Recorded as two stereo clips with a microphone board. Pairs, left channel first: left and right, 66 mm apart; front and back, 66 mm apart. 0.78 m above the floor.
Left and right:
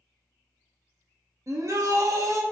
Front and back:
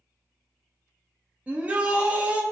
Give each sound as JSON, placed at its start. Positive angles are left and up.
{"t": 1.5, "sound": "a shout", "azimuth_deg": -115, "distance_m": 0.6}